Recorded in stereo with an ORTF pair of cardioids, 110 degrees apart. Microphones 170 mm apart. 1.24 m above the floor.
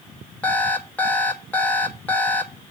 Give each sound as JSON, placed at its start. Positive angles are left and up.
{"t": 0.4, "sound": "an alarm clock", "azimuth_deg": 10, "distance_m": 1.0}